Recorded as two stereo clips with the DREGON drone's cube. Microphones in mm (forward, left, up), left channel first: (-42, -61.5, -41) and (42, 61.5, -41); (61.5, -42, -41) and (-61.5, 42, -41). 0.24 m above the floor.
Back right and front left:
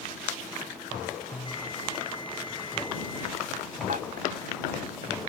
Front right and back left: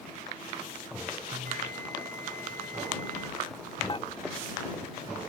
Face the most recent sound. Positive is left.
turn(degrees=20)